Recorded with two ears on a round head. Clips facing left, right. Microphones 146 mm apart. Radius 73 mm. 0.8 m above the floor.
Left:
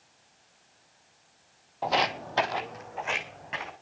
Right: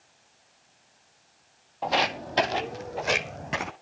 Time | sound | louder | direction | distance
1.8 | footsteps | right 1 dB | 5° left (ahead or behind) | 1.1 m